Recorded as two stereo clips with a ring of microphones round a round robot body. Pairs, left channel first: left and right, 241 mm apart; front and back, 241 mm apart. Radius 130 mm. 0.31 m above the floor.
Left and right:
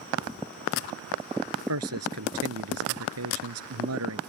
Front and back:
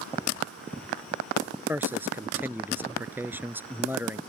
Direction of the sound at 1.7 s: 100° right.